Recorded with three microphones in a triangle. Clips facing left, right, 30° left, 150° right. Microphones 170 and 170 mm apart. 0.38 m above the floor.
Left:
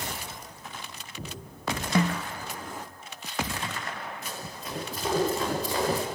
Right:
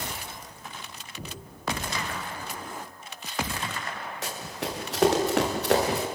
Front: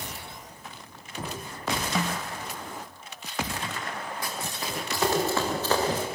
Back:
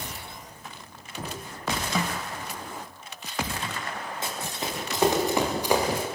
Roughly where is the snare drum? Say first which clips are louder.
Left 9 dB, back 1 dB; behind left.